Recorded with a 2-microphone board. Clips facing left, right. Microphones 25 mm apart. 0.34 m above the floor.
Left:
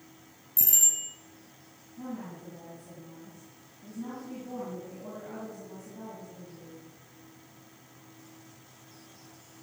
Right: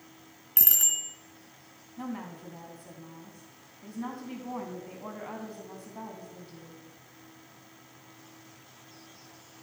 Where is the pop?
I don't hear a pop.